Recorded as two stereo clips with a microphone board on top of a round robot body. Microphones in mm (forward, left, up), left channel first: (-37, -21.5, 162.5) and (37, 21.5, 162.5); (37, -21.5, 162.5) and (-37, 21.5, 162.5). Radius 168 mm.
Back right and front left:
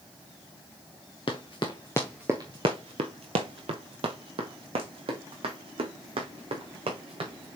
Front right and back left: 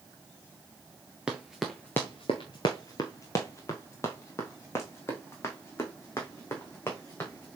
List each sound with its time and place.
1.3 s running footsteps: 130° right, 0.7 m; by 7.6 s 35° left, 3.5 m